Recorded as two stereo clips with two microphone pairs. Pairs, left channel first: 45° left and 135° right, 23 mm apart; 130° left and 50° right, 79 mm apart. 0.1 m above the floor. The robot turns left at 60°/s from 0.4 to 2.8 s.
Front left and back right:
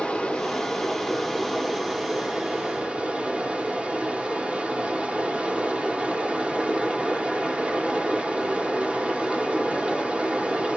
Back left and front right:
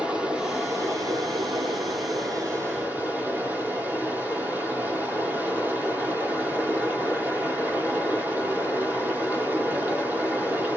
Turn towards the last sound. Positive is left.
turn(degrees=-115)